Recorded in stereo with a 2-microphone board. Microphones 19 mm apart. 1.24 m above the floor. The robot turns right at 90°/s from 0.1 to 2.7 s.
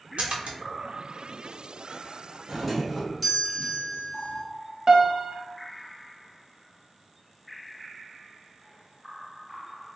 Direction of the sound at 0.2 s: 70° right (ahead or behind).